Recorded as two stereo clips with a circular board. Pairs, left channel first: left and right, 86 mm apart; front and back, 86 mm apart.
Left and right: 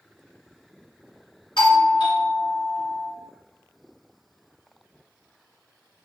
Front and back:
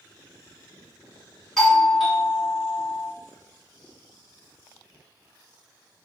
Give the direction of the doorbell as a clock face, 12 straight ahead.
9 o'clock.